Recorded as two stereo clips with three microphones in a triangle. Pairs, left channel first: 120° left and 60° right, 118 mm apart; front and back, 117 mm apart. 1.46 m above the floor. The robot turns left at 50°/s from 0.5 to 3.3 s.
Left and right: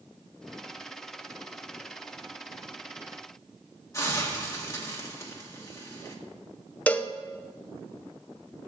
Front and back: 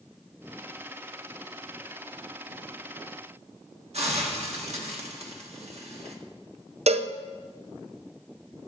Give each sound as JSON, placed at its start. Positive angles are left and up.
{"t": 3.9, "sound": "a hiss", "azimuth_deg": 180, "distance_m": 1.5}
{"t": 6.9, "sound": "a cowbell", "azimuth_deg": -165, "distance_m": 0.5}